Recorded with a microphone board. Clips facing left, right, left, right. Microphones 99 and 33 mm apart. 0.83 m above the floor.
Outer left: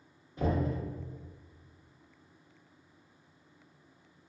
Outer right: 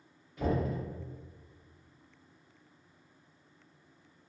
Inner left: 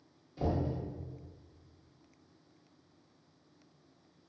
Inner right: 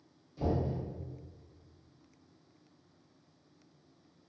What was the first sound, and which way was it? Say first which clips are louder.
Knocking: even, inner right 1 dB; 25° left (ahead or behind).